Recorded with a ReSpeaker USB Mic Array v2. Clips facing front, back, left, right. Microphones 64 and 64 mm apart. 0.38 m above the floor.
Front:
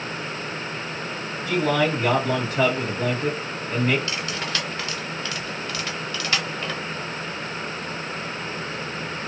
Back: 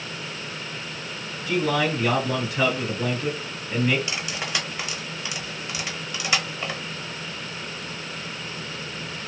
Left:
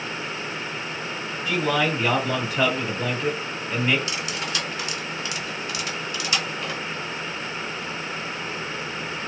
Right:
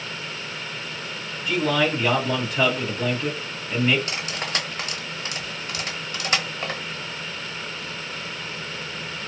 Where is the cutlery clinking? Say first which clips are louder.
Front 2 dB, even; 105° right, 0.7 m.